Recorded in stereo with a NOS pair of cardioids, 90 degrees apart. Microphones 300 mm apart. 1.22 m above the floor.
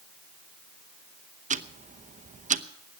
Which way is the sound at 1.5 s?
25° right.